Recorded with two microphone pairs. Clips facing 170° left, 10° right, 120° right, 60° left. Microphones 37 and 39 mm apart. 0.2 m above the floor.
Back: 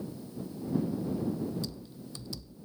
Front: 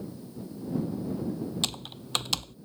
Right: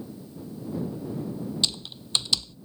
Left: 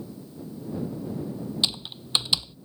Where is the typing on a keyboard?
5° right.